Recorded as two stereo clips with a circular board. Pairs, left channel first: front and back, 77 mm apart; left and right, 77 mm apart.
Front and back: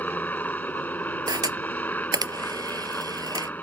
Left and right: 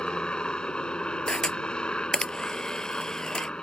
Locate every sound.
0.0 s a helicopter: 30° left
1.3 s a camera shutter: 170° left